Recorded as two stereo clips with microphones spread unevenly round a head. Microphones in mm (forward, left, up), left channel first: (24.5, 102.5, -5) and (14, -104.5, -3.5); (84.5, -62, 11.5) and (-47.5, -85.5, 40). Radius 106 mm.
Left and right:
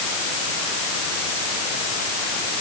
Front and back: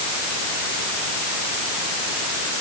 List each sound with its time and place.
Only background noise.